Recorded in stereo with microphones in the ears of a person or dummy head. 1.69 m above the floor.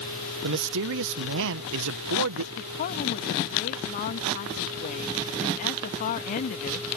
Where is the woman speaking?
40° left (ahead or behind).